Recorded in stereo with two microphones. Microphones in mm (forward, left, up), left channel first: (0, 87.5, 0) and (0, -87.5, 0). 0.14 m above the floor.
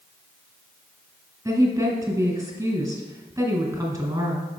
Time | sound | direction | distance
1.4 | a woman speaking | 20° right (ahead or behind) | 1.4 m